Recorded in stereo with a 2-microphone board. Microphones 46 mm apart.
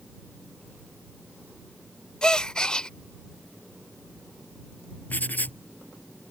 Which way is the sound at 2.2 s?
20° left (ahead or behind).